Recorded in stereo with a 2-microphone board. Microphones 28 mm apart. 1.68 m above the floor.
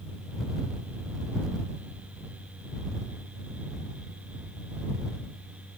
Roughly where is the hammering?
I don't hear hammering.